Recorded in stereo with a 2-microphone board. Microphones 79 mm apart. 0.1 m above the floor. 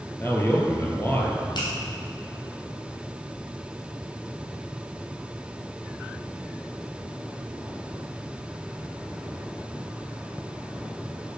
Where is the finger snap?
65° left (ahead or behind), 3.5 m.